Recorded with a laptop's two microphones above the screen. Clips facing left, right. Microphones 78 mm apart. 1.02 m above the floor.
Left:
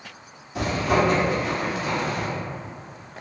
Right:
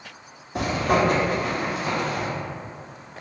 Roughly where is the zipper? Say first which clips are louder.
Even; right.